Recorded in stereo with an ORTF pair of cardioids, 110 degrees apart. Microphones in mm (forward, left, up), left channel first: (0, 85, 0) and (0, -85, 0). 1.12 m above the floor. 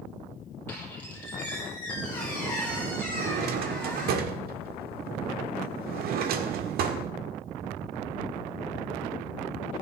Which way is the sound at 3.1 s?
65° right.